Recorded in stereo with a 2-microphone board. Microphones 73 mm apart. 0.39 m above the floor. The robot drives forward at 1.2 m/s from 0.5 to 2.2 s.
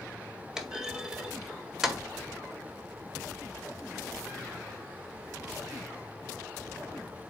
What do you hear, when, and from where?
0.6 s a clunk: 10° right (ahead or behind), 1.4 m